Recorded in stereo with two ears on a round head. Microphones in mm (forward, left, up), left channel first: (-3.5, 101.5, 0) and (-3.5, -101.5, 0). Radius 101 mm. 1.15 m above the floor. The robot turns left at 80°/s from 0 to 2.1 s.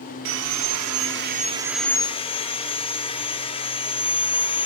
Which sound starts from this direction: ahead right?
Sawing, at 0.2 s.